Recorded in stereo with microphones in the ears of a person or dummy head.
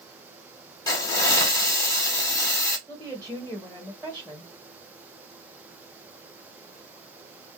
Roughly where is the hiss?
Centre.